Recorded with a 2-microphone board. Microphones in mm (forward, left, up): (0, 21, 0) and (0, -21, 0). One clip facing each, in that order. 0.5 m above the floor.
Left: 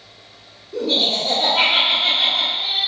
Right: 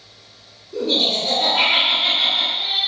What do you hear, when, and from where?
0.7 s laughter: 5° left (ahead or behind), 1.6 m